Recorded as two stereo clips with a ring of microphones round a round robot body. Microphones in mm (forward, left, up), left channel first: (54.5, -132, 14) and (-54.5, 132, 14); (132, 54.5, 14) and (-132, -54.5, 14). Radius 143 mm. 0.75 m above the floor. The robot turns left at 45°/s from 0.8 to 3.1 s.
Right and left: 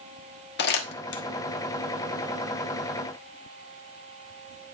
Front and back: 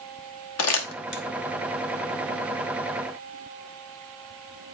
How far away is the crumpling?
About 1.2 m.